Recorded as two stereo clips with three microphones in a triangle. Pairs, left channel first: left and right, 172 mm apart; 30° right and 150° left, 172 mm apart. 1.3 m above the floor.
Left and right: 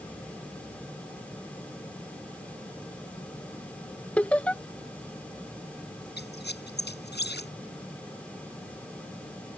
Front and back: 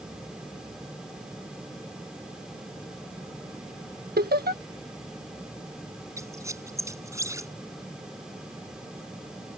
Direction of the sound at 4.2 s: 170° left.